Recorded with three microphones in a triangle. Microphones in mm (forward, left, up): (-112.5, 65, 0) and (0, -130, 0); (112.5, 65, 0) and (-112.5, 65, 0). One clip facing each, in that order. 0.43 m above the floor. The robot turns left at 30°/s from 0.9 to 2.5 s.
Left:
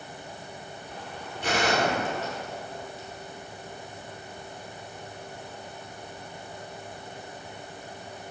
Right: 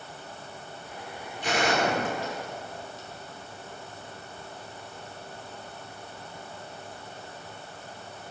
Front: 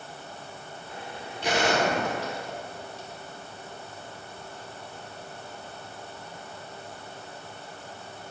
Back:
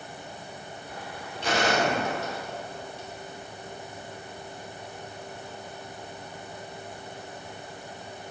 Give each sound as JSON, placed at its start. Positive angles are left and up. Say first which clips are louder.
{"t": 1.4, "sound": "a gunshot", "louder": "even, even", "azimuth_deg": 75, "distance_m": 1.4}